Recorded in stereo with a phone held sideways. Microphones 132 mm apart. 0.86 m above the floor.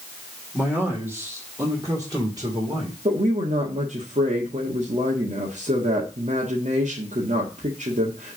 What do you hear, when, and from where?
0.5 s a man speaking: 10° right (ahead or behind), 2.5 m; by 3.0 s 40° right (ahead or behind), 3 m
3.0 s a woman speaking: 65° right (ahead or behind), 1.5 m